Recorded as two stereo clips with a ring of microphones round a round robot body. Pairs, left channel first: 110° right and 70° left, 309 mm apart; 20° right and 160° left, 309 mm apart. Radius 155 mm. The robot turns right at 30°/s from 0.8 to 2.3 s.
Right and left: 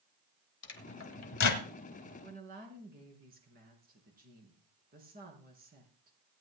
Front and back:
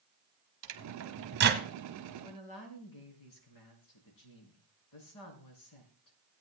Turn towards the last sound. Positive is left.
turn(degrees=5)